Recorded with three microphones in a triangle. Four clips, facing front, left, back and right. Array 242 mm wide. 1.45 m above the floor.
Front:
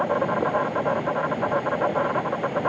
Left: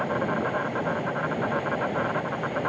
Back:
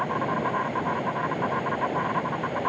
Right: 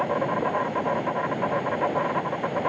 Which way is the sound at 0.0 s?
20° right.